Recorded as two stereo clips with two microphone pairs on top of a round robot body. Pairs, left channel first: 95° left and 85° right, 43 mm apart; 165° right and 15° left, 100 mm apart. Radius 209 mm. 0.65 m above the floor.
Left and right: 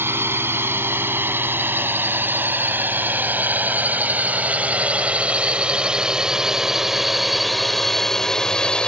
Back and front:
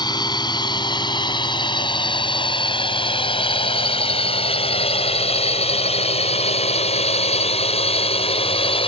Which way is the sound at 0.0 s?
115° right.